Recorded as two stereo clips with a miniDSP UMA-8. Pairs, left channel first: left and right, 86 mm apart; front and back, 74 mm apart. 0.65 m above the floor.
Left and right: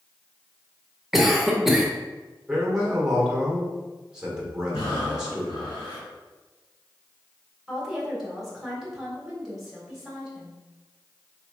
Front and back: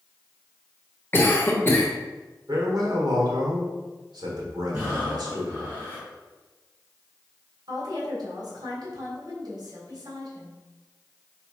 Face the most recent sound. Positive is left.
turn(degrees=-175)